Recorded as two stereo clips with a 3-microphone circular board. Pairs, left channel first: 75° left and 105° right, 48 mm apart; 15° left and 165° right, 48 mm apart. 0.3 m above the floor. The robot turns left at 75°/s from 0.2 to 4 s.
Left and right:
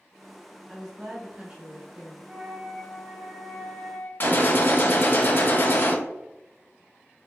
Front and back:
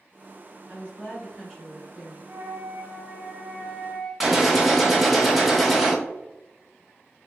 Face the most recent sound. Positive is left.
turn(degrees=110)